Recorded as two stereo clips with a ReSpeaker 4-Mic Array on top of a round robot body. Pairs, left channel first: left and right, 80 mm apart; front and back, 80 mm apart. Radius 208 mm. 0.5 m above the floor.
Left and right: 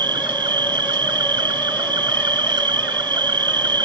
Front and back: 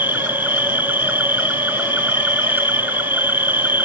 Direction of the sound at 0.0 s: 115° right.